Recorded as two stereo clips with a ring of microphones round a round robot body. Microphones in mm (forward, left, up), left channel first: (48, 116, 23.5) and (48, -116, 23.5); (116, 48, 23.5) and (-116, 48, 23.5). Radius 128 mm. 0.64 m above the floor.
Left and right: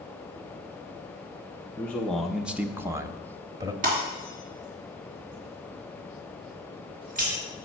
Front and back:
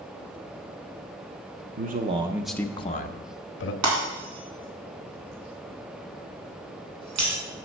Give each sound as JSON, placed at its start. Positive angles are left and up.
{"t": 1.8, "sound": "a man speaking", "azimuth_deg": 170, "distance_m": 0.7}
{"t": 3.8, "sound": "breaking glass", "azimuth_deg": -150, "distance_m": 2.5}